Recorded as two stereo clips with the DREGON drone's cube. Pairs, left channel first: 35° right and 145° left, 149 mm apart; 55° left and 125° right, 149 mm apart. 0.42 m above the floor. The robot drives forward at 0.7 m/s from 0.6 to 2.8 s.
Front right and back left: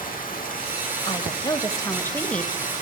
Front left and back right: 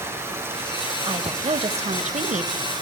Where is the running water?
50° right, 6.5 m; by 2.8 s 65° right, 5.5 m.